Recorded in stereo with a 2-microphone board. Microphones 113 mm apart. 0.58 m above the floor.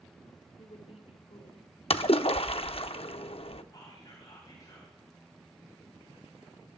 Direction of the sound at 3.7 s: 30° left (ahead or behind).